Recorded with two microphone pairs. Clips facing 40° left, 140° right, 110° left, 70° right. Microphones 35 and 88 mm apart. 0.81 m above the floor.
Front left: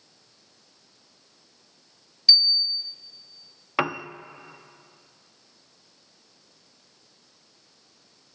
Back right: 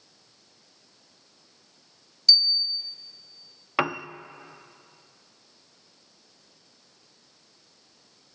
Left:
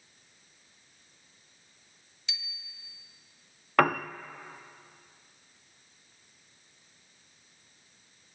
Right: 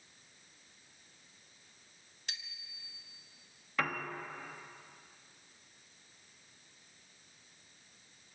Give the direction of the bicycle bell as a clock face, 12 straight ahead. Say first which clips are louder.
Front left 2 dB, left 1 dB; 1 o'clock.